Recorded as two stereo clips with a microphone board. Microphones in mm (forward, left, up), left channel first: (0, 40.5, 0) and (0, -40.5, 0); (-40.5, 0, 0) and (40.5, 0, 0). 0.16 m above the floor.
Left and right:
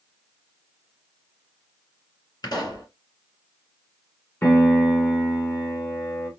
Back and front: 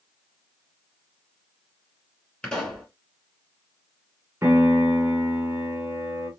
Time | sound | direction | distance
2.4 | a pop | 105° left | 3.5 m
4.4 | a piano | 45° left | 1.7 m